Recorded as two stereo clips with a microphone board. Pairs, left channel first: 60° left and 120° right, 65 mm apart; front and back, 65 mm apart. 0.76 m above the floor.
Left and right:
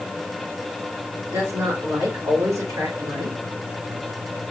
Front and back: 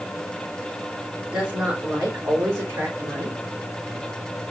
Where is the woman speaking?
110° right, 2.5 m; by 3.4 s 135° right, 3.5 m.